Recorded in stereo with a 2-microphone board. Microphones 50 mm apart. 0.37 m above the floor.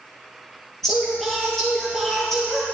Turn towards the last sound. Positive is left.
turn(degrees=5)  # may be behind; listen again after turning